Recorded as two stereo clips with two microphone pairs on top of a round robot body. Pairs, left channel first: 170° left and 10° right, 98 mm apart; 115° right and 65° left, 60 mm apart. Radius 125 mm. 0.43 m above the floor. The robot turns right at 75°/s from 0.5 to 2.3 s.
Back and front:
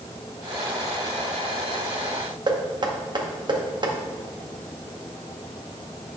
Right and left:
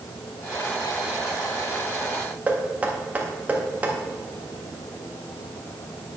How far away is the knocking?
About 1.6 m.